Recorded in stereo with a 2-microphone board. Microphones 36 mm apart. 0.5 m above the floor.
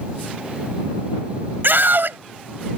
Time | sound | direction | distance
1.6 | a scream | 65° right (ahead or behind) | ?